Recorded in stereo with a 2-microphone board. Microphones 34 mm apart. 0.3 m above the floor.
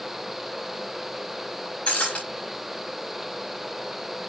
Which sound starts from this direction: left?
Breaking glass, at 1.9 s.